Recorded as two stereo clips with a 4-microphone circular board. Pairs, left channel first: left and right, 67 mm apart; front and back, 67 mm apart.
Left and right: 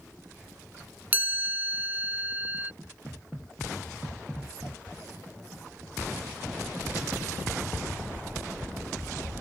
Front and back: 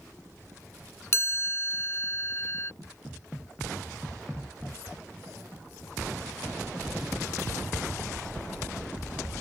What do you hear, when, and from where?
1.1 s a chime: 35° right